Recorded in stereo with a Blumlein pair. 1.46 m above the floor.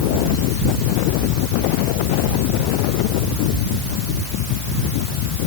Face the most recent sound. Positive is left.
No sound to turn to.